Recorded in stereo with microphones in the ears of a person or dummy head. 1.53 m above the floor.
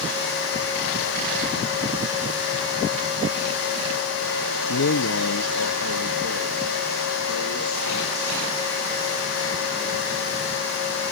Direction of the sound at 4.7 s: 70° left (ahead or behind).